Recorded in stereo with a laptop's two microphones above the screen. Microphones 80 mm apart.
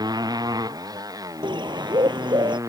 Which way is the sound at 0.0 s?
50° right (ahead or behind).